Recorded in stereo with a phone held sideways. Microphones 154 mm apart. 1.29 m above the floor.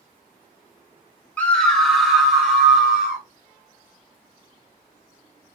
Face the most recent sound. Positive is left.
turn(degrees=-5)  # may be behind; listen again after turning